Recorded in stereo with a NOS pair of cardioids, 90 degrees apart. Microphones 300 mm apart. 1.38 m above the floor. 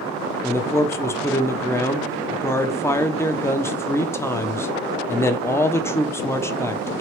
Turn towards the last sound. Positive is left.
turn(degrees=10)